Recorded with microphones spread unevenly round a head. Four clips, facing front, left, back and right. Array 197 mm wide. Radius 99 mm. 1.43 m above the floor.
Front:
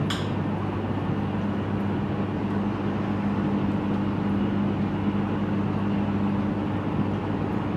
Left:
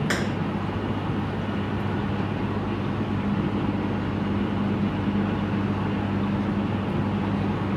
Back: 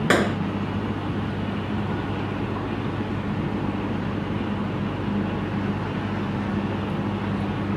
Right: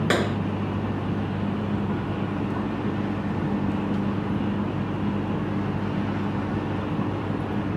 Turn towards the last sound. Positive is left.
turn(degrees=-155)